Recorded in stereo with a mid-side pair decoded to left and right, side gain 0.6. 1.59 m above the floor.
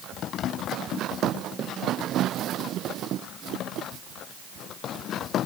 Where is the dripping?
No dripping in this recording.